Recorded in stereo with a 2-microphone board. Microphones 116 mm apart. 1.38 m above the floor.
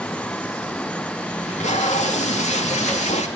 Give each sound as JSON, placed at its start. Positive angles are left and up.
{"t": 1.4, "sound": "tape being pulled", "side_deg": 85, "distance_m": 2.5}